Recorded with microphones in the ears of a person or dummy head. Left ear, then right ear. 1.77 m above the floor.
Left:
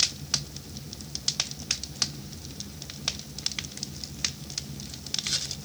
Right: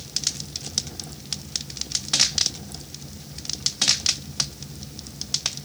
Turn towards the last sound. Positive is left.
No sound to turn to.